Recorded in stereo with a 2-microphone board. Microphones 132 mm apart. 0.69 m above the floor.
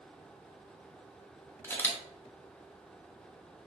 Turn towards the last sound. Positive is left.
turn(degrees=15)  # may be behind; listen again after turning